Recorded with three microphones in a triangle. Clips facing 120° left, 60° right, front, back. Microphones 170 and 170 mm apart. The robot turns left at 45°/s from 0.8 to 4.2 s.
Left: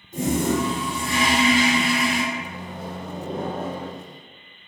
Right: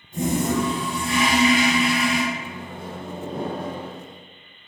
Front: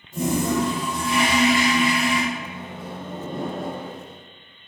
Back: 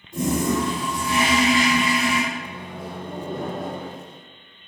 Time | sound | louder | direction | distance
0.1 | a toilet flushing | even, even | 80° right | 1.9 m
2.3 | a microwave | left 1 dB, even | 60° left | 1.0 m